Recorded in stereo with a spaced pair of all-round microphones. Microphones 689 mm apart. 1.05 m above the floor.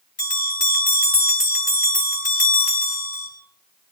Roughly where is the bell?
Left.